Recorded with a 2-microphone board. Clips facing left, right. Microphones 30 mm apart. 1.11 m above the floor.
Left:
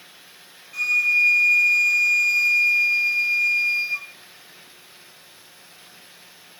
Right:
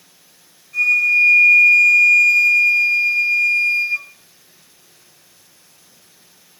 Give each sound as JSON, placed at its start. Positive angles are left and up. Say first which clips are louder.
{"t": 0.7, "sound": "a flute", "louder": "right 5 dB", "side_deg": 10, "distance_m": 2.5}